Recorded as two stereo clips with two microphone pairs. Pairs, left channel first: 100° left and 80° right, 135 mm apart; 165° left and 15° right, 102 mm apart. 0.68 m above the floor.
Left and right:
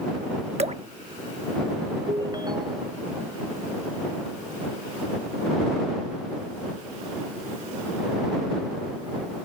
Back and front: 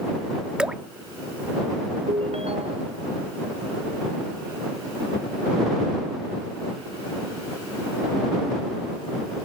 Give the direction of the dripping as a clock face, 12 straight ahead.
3 o'clock.